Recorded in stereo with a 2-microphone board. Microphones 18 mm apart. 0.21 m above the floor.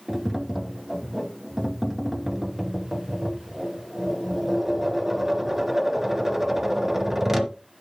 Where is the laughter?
I don't hear laughter.